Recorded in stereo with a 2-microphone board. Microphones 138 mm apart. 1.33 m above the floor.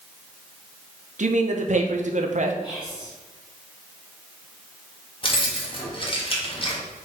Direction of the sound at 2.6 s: 25° left (ahead or behind).